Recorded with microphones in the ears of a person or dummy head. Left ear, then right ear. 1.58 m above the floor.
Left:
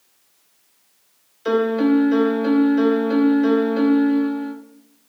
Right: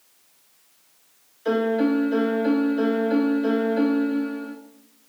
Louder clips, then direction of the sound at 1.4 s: Left 3 dB; 30° left (ahead or behind).